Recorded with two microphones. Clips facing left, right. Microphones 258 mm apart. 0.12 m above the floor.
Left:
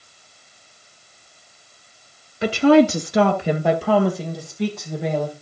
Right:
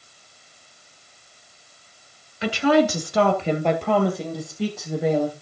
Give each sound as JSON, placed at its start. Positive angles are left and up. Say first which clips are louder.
{"t": 2.4, "sound": "a woman speaking", "louder": "left 5 dB", "side_deg": 35, "distance_m": 1.3}